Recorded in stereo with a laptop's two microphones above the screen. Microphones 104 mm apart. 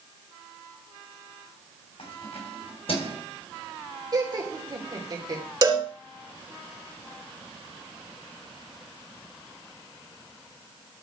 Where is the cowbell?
40° right (ahead or behind), 1.6 m.